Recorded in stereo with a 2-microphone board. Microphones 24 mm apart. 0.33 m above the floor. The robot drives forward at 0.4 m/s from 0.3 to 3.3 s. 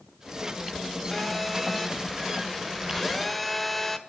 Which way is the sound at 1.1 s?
Centre (ahead or behind).